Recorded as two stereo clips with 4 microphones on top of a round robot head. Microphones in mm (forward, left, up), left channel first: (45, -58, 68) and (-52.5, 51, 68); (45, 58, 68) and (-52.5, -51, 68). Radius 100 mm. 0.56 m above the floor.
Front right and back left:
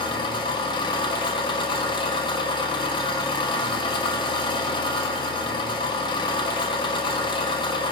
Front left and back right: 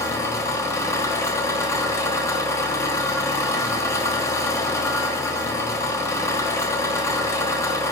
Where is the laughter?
I don't hear laughter.